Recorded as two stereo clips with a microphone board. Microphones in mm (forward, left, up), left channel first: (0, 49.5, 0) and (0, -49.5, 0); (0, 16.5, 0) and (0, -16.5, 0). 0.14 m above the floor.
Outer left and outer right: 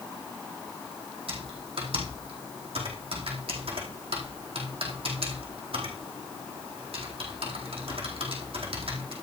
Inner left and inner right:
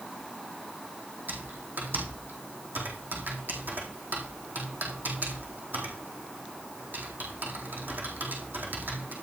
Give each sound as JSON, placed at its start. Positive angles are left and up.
{"t": 1.3, "sound": "typing on a keyboard", "side_deg": -70, "distance_m": 4.0}